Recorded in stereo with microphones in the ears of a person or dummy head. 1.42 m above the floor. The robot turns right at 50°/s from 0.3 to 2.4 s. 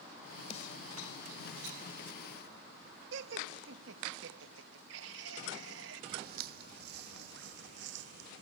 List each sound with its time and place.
0.5 s a snare drum: 40° left (ahead or behind); by 0.8 s 55° left (ahead or behind)
3.1 s laughter: 80° right
6.1 s footsteps: 55° right (ahead or behind); by 8.4 s 75° right (ahead or behind)